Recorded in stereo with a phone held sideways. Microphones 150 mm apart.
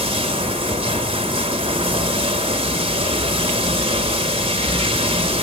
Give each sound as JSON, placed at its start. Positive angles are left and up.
{"t": 0.0, "sound": "running water", "side_deg": -35, "distance_m": 1.1}